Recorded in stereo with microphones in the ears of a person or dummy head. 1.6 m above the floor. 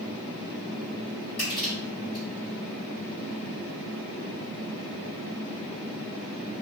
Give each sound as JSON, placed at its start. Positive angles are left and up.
{"t": 1.4, "sound": "crushing", "side_deg": 35, "distance_m": 1.7}